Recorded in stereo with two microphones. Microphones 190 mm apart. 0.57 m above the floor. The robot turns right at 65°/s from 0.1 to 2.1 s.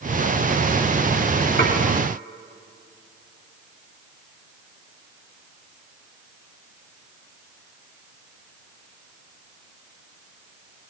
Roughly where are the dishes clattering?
Left.